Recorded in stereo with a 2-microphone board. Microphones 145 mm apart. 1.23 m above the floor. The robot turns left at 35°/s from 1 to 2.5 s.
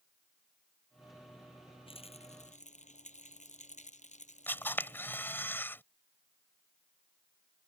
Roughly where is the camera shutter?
Centre.